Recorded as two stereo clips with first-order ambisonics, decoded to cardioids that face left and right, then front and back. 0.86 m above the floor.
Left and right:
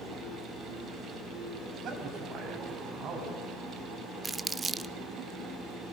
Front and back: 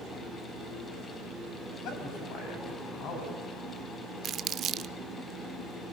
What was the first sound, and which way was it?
A man speaking, 40° right.